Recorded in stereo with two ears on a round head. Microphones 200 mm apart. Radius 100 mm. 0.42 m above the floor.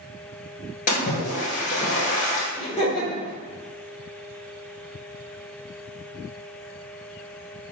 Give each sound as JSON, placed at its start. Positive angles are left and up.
{"t": 0.9, "sound": "a splash", "side_deg": 40, "distance_m": 1.3}
{"t": 2.6, "sound": "laughter", "side_deg": 30, "distance_m": 1.6}